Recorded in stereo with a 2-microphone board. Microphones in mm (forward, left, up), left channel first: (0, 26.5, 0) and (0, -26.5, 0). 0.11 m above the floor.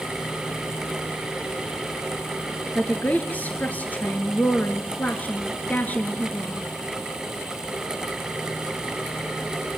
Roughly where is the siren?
I don't hear a siren.